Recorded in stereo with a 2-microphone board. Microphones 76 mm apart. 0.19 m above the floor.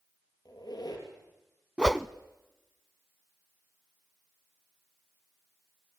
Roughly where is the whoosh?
Centre.